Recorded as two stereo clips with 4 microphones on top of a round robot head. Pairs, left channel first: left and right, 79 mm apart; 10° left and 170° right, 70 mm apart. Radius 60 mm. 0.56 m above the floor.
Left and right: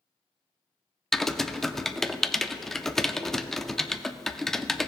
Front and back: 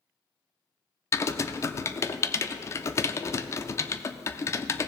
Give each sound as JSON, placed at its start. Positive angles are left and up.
{"t": 1.1, "sound": "typing on a keyboard", "azimuth_deg": 5, "distance_m": 0.6}